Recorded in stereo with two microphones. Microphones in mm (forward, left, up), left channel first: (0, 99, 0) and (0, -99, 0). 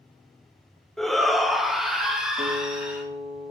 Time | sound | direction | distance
1.0 | a shout | centre (ahead or behind) | 1.1 m
2.4 | a guitar | 50° right (ahead or behind) | 3.5 m